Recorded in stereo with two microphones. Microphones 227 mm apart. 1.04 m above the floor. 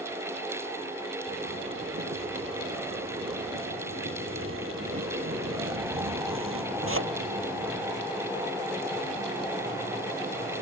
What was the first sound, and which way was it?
A zipper, 65° right (ahead or behind).